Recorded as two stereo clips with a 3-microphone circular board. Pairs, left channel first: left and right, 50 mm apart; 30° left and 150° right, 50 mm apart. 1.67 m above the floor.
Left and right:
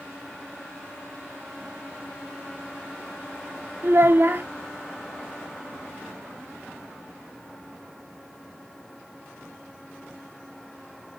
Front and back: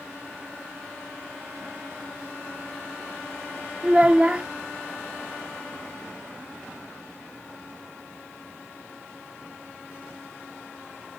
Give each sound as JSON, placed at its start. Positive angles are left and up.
{"t": 3.8, "sound": "a child speaking", "azimuth_deg": -90, "distance_m": 0.6}